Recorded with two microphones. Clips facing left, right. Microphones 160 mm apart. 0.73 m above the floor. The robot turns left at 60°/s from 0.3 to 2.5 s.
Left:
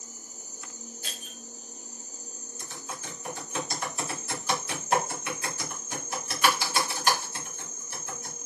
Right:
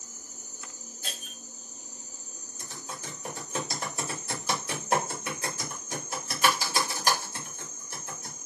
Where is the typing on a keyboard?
35° right (ahead or behind), 1.9 m.